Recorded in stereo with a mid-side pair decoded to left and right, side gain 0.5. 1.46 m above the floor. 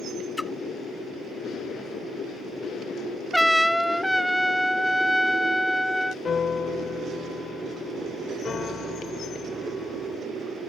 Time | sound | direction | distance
0.4 | a splash | 10° left | ?
3.3 | a trumpet | straight ahead | ?
6.2 | a piano | 35° left | ?